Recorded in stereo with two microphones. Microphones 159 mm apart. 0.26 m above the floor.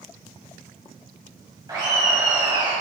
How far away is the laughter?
About 1.7 m.